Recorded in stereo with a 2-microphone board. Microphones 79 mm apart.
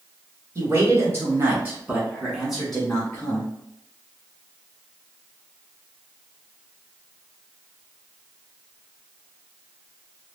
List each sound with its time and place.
0.6 s a man speaking: 45° right (ahead or behind), 1.7 m; by 3.5 s 25° left (ahead or behind), 1.3 m